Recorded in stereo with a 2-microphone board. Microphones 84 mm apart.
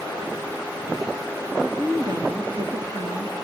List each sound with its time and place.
1.6 s a woman speaking: 55° right (ahead or behind), 2 m